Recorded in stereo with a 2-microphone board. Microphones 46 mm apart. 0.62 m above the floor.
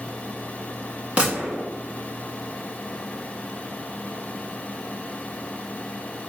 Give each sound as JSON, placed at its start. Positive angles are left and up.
{"t": 1.2, "sound": "a gunshot", "side_deg": -30, "distance_m": 1.4}